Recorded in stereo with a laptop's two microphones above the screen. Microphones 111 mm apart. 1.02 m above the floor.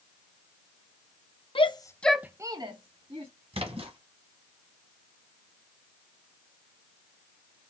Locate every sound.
1.6 s a shout: 50° left (ahead or behind), 1.0 m; by 3.3 s 60° right (ahead or behind), 1.9 m
3.5 s a splash: 60° right (ahead or behind), 1.4 m